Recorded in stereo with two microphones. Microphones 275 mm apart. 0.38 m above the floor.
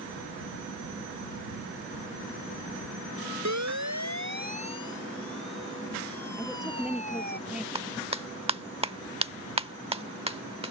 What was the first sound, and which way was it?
A siren, 70° right (ahead or behind).